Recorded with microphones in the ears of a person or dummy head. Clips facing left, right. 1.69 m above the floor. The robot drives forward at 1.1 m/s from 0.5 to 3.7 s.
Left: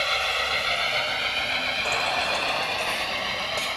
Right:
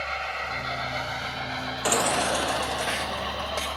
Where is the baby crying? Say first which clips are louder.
Right 5 dB; 25° right (ahead or behind); by 3.8 s 5° right (ahead or behind).